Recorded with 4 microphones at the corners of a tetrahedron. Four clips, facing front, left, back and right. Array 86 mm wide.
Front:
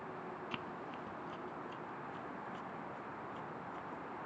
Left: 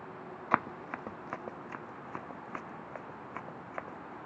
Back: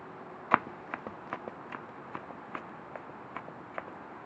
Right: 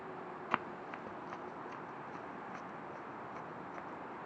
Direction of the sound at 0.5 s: 160° left.